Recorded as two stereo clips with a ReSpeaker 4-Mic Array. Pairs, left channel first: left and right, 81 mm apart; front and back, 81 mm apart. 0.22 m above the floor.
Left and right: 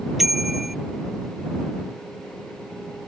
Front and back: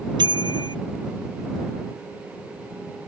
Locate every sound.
0.2 s a bicycle bell: straight behind